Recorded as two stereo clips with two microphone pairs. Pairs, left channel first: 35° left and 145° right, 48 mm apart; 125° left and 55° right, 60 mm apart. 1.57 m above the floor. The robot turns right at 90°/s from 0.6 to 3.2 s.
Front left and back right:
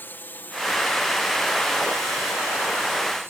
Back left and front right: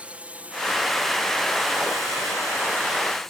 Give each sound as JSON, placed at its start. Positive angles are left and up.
{"t": 0.0, "sound": "a drone", "azimuth_deg": 5}